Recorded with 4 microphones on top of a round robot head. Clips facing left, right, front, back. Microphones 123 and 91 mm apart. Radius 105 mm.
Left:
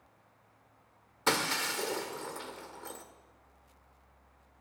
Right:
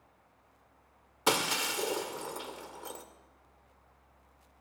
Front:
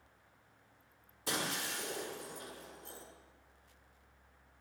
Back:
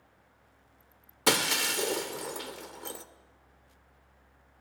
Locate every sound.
1.3 s breaking glass: 165° right, 1.6 m